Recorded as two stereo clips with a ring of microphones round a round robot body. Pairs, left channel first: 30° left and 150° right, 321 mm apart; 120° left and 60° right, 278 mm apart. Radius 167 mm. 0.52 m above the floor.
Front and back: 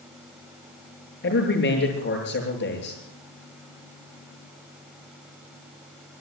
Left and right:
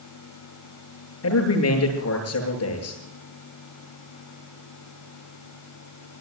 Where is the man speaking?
85° left, 7.5 m.